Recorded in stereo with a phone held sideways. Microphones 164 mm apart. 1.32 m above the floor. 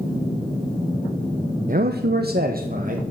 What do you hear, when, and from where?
1.7 s a man speaking: 55° right (ahead or behind), 0.7 m